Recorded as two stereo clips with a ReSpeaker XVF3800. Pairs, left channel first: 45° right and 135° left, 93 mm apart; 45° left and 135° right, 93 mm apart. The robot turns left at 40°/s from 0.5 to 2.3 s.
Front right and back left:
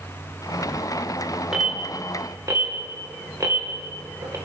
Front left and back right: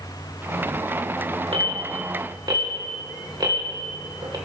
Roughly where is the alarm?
Behind right.